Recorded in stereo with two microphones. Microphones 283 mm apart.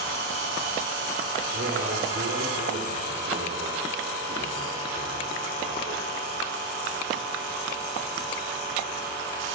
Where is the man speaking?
40° right (ahead or behind), 6 m.